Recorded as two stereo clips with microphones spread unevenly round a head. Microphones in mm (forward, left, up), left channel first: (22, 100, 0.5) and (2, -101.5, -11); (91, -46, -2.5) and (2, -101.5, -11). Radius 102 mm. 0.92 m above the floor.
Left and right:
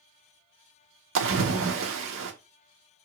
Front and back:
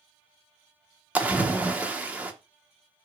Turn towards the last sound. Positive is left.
turn(degrees=-70)